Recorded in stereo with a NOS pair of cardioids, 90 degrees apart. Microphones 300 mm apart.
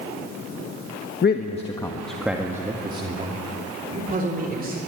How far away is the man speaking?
About 1.3 m.